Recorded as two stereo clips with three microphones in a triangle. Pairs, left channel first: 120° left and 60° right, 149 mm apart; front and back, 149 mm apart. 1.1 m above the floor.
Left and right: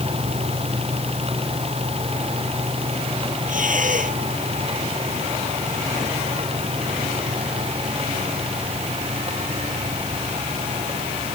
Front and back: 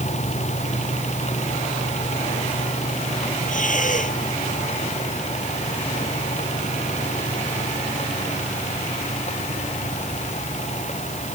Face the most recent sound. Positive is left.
turn(degrees=-30)